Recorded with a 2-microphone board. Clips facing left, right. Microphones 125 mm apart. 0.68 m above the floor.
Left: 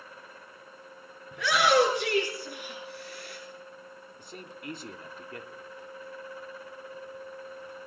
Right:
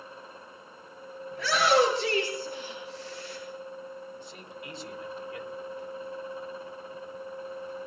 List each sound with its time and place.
1.3 s a shout: 85° left, 7.5 m; by 3.4 s 65° left (ahead or behind), 9 m
4.2 s a man speaking: 50° left (ahead or behind), 1.9 m